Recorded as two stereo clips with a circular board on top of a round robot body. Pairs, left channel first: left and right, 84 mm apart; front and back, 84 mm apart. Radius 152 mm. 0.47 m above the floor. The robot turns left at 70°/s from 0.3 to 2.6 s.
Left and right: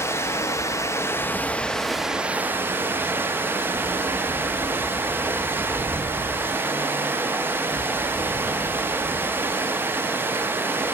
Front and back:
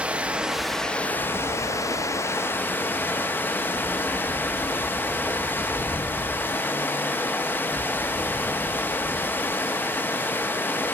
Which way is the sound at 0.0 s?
115° left.